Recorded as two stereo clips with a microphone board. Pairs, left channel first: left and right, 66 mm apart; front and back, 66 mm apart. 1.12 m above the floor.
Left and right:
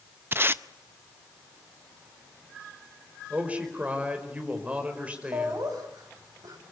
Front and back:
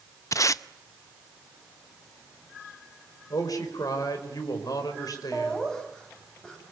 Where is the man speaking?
20° right, 5 m.